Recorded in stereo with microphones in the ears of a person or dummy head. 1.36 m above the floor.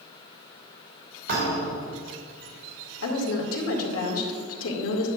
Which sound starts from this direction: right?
A thud, at 1.3 s.